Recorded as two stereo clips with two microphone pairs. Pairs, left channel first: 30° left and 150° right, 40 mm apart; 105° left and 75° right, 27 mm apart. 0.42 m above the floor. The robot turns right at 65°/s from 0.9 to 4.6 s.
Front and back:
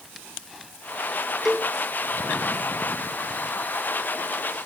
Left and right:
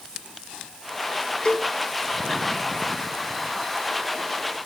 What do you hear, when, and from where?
1.4 s a cowbell: 130° left, 1.7 m; by 1.7 s 150° left, 1.7 m